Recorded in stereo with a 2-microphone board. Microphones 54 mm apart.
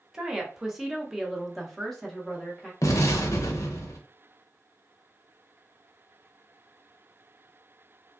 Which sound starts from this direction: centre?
A woman speaking, at 0.1 s.